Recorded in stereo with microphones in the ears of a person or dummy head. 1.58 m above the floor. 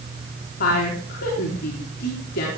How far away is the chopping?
I don't hear chopping.